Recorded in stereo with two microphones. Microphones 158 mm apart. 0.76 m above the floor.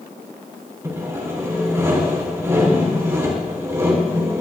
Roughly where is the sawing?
Centre.